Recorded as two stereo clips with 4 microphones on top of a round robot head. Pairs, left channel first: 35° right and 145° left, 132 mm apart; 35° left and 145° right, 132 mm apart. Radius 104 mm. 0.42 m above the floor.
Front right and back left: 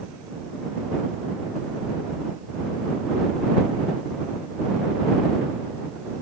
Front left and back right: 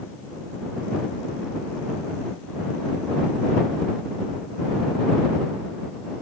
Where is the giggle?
No giggle in this recording.